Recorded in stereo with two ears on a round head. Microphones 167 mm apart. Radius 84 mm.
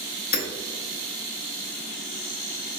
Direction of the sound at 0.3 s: 55° left (ahead or behind).